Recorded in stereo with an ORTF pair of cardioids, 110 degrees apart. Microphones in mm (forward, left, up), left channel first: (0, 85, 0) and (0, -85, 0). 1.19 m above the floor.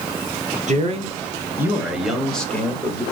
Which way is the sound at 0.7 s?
45° right.